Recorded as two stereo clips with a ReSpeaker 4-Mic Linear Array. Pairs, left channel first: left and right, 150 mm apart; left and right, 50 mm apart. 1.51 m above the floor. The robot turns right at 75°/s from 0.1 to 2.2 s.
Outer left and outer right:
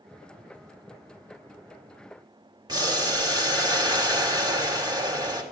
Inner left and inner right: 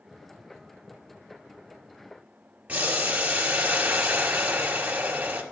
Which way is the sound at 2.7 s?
30° right (ahead or behind).